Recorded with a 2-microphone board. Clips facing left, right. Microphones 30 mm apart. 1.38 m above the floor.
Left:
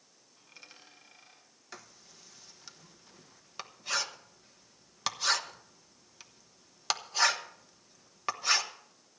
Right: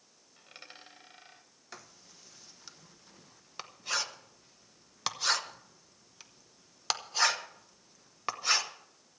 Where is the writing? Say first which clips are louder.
Even; centre (ahead or behind), 1.0 m.